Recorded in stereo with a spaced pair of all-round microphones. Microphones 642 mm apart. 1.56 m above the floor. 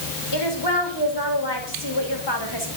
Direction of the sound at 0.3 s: 40° left (ahead or behind).